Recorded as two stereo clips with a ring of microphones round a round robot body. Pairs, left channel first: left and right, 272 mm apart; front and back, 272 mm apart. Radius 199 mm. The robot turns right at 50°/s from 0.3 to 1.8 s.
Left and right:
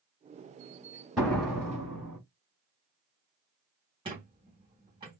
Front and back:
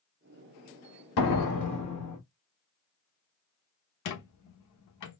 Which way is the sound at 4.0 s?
15° right.